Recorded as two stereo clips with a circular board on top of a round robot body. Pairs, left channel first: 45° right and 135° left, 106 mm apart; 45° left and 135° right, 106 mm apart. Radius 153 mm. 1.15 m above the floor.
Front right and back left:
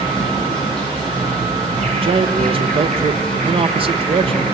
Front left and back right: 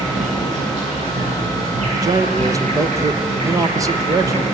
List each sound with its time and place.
0.0 s an insect: 125° right, 9.5 m
1.9 s a man speaking: 165° left, 1.3 m